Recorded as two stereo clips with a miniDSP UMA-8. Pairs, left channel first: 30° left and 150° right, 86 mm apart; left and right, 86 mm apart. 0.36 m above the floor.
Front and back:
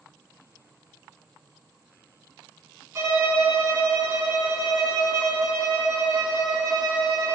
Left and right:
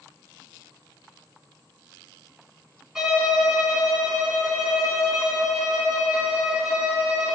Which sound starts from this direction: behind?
A violin, at 3.0 s.